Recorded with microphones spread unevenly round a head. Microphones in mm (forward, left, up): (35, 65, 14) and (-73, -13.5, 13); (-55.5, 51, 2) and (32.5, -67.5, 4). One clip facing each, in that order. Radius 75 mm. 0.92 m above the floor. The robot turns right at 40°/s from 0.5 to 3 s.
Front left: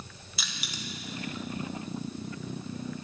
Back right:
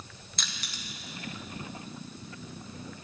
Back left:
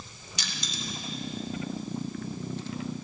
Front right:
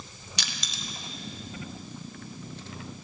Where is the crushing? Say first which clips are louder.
Front left 3 dB, back left 3 dB; 50° right, 0.9 m; by 0.8 s 35° right, 0.9 m.